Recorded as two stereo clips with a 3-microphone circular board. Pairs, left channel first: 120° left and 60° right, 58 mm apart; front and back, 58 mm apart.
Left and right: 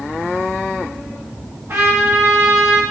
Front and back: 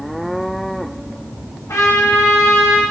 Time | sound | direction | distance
1.7 | a trumpet | 25° right | 1.1 m